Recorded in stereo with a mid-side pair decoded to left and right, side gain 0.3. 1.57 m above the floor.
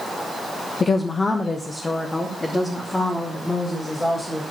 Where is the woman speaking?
55° left, 1.0 m; by 4.4 s 20° left, 5 m.